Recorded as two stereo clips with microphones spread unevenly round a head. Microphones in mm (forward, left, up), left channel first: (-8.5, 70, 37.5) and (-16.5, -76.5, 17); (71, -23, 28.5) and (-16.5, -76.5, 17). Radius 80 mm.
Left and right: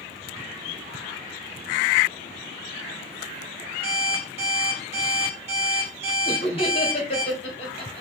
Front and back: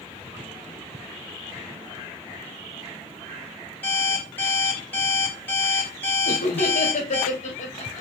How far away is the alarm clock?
About 2.5 m.